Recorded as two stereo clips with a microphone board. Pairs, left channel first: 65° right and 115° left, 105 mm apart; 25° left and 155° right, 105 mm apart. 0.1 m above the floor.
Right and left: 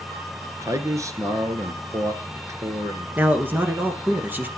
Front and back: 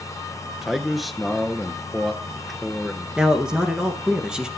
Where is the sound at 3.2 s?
135° left, 1.5 m.